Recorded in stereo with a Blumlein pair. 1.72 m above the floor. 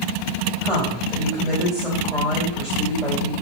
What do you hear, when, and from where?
0.6 s a woman speaking: 5° left, 1.7 m